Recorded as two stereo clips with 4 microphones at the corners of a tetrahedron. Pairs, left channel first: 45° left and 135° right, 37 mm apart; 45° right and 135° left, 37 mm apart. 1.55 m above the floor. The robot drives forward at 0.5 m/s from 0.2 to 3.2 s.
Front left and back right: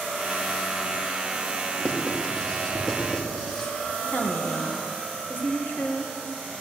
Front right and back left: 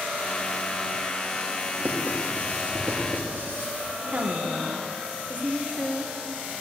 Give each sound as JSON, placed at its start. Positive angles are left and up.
{"t": 1.8, "sound": "writing", "azimuth_deg": 105, "distance_m": 2.0}
{"t": 4.1, "sound": "a woman speaking", "azimuth_deg": 85, "distance_m": 1.6}